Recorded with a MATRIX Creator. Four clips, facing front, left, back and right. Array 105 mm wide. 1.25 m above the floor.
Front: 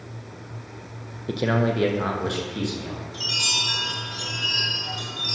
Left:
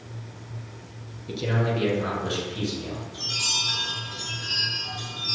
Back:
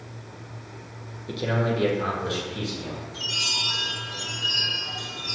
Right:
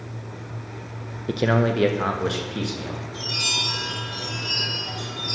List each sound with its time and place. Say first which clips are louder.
1.3 s a man speaking: right 6 dB, front 3 dB; 65° right, 0.6 m; by 3.0 s 75° right, 2.0 m
3.1 s a chime: right 4 dB, front 2 dB; 5° left, 3.5 m